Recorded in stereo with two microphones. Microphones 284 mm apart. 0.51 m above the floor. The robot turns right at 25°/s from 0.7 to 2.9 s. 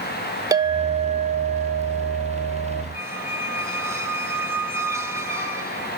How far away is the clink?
About 0.6 m.